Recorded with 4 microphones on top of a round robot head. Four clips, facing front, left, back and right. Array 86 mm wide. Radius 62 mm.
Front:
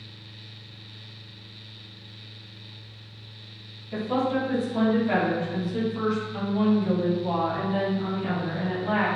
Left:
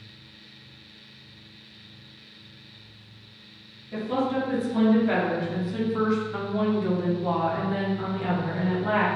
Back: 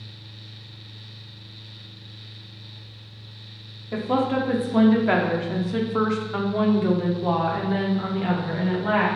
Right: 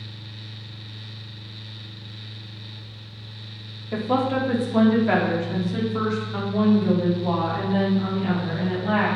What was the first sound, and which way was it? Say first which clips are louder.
A woman speaking: right 4 dB, back 3 dB; 130° right.